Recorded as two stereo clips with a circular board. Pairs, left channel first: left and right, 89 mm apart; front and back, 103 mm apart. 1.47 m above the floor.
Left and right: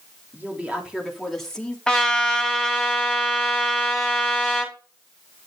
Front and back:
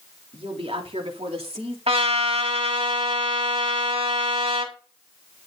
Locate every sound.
0.3 s a woman speaking: 155° right, 3.5 m; by 1.8 s 170° left, 3.5 m
1.9 s a trumpet: 175° left, 4 m